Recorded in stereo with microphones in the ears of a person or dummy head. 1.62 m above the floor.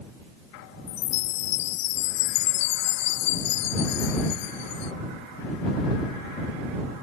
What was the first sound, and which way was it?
A chime, 90° left.